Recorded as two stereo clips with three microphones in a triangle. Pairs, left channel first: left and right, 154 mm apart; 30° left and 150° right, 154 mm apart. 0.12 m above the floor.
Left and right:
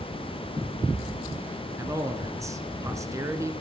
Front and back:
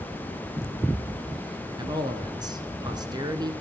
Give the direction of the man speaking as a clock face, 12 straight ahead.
4 o'clock.